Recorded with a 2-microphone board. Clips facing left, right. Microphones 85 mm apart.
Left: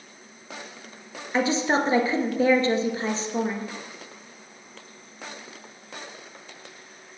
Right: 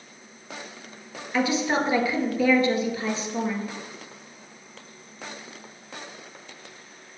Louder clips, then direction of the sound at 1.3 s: Left 1 dB; 30° left (ahead or behind).